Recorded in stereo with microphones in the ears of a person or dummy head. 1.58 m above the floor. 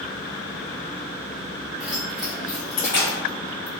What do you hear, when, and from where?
1.8 s keys jangling: centre (ahead or behind), 0.9 m; by 3.7 s 5° left (ahead or behind), 0.7 m